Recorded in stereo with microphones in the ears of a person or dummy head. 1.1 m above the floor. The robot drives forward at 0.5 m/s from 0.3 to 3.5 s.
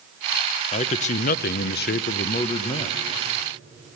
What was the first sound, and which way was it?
A man speaking, 40° left (ahead or behind).